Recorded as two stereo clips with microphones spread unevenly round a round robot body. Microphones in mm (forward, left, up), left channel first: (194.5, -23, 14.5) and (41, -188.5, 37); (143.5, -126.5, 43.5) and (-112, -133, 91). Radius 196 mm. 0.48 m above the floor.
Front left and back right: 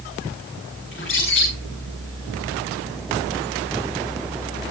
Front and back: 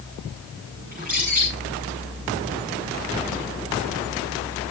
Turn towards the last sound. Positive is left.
turn(degrees=115)